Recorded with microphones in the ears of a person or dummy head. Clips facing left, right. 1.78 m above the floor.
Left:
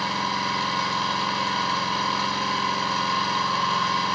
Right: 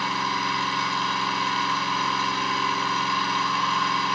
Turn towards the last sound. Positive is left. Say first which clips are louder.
# even
turn(degrees=35)  # may be behind; listen again after turning